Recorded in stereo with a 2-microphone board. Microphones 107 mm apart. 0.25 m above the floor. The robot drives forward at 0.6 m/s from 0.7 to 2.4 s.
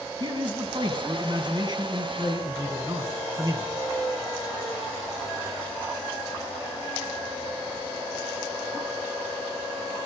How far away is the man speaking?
About 2.5 m.